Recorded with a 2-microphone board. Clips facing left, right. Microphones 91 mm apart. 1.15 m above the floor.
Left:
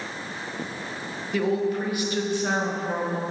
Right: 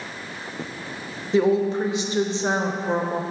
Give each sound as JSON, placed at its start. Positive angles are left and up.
{"t": 1.3, "sound": "a woman speaking", "side_deg": -25, "distance_m": 0.6}